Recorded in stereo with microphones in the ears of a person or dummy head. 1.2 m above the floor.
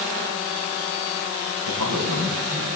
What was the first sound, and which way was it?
A man speaking, 85° right.